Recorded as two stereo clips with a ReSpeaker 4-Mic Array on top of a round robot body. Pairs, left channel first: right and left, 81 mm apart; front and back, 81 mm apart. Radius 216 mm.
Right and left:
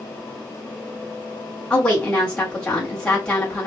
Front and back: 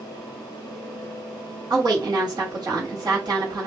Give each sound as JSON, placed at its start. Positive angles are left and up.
{"t": 1.7, "sound": "a woman speaking", "azimuth_deg": -165, "distance_m": 1.9}